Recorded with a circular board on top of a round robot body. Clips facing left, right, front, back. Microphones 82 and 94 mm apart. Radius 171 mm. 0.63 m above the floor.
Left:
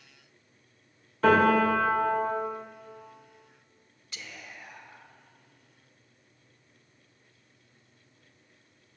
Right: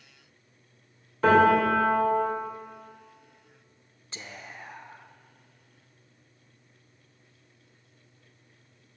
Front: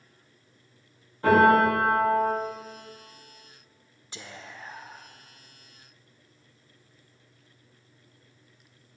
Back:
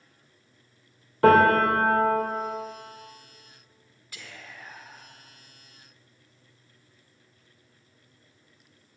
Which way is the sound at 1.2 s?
175° right.